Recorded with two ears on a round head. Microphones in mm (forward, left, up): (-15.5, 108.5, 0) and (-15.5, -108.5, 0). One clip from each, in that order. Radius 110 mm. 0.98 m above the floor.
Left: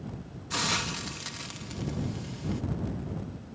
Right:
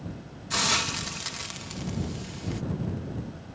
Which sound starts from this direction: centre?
A hiss, at 0.5 s.